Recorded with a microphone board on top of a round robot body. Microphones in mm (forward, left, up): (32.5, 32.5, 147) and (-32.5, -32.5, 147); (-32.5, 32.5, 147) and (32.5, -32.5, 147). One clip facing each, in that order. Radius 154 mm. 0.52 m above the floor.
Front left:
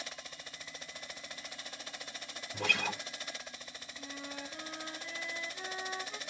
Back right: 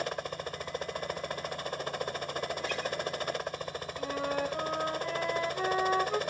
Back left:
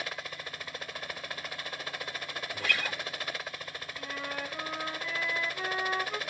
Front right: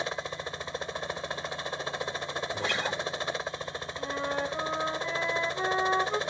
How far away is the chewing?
I don't hear chewing.